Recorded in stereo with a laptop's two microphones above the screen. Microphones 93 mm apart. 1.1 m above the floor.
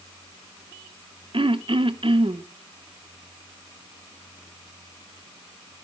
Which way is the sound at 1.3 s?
65° right (ahead or behind).